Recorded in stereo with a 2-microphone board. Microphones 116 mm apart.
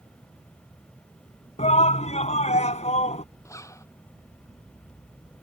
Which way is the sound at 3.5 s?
25° left (ahead or behind).